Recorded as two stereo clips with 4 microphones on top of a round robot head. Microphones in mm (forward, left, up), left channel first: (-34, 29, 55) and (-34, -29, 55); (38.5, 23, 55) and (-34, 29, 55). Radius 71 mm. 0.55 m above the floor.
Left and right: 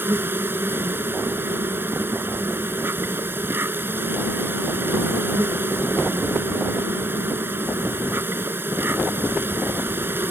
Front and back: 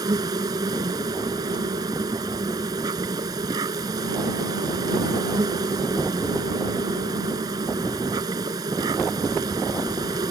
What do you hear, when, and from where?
0.0 s an insect: 145° right